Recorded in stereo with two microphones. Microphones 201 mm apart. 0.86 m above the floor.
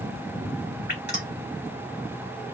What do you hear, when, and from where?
0.9 s dripping: 55° left (ahead or behind), 2.5 m